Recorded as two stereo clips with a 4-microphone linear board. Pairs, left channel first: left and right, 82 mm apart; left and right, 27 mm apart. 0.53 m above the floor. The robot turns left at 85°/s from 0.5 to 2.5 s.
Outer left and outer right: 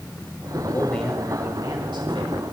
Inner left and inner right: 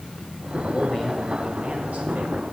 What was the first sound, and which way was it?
A man speaking, 35° left.